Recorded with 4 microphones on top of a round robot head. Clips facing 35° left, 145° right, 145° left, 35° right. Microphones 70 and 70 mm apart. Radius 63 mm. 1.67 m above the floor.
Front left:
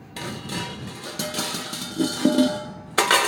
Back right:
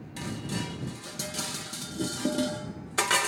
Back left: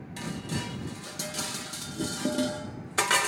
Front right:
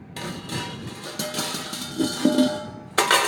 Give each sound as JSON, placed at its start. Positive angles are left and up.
{"t": 0.2, "sound": "dishes clattering", "azimuth_deg": 0}